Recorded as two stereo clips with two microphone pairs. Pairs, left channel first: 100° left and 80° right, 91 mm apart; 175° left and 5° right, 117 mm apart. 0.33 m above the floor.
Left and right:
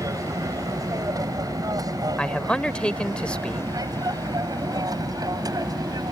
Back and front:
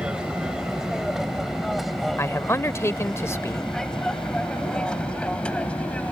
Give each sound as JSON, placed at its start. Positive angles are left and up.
{"t": 0.0, "sound": "an aircraft", "azimuth_deg": -85}
{"t": 2.2, "sound": "a man speaking", "azimuth_deg": 165}